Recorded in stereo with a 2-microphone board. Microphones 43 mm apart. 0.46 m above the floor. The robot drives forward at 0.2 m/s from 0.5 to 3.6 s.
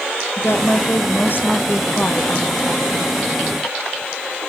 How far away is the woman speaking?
About 1.3 m.